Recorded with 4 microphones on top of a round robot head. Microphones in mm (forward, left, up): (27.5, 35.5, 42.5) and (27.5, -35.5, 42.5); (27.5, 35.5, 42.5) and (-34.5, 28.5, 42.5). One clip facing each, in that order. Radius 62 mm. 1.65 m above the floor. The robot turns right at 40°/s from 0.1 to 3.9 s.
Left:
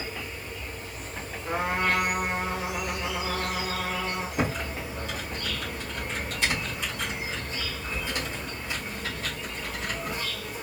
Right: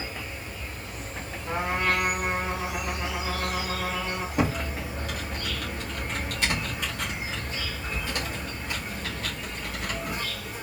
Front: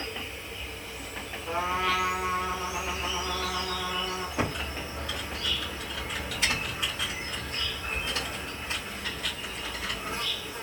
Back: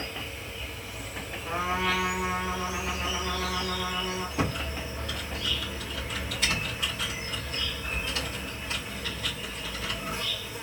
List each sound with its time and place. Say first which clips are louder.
0.0 s an insect: even, even; 170° right, 1.5 m; by 10.6 s 20° right, 1.5 m
1.4 s a trumpet: even, front 1 dB; 165° left, 1.6 m; by 4.3 s 95° right, 1.6 m
4.4 s typing on a keyboard: right 4 dB, even; 75° right, 1.0 m